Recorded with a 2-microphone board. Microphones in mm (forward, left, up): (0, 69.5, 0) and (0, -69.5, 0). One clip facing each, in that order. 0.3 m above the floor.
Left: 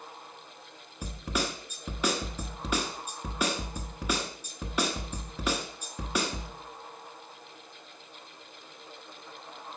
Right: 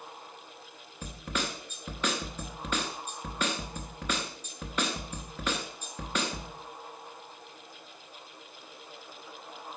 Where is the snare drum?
10° left (ahead or behind), 1.3 m.